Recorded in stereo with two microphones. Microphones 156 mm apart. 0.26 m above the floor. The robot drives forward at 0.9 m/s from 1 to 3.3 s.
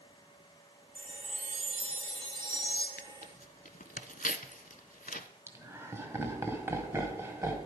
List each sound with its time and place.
0.9 s a chime: 55° right (ahead or behind), 0.9 m; by 2.9 s 25° right (ahead or behind), 1.8 m
3.0 s tearing paper: 85° left, 0.5 m; by 5.3 s 65° left (ahead or behind), 0.6 m
5.5 s laughter: 15° right (ahead or behind), 1.5 m